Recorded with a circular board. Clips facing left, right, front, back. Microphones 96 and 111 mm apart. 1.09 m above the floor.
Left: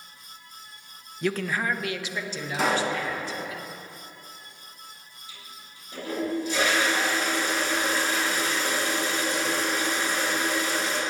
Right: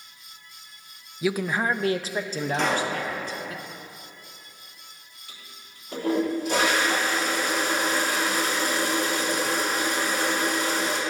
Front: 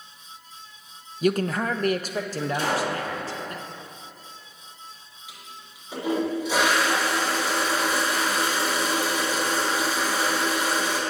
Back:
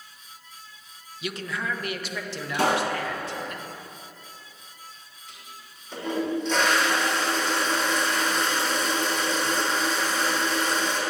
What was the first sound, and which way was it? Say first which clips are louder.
A man speaking: right 2 dB, front 9 dB; 5° right.